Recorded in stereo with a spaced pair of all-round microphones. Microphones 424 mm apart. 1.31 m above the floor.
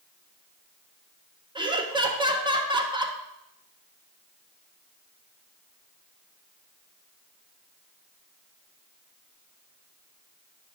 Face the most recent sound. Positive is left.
turn(degrees=-10)  # may be behind; listen again after turning